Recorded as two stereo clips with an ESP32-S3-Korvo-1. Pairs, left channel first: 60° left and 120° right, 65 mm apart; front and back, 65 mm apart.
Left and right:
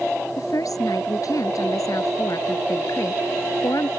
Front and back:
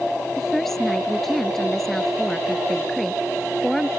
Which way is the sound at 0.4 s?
85° left.